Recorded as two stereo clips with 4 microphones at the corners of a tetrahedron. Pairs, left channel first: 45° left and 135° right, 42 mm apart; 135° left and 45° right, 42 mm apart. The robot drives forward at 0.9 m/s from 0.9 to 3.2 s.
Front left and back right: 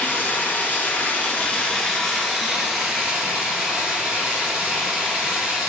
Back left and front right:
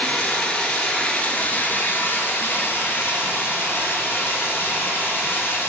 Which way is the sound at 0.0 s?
75° left.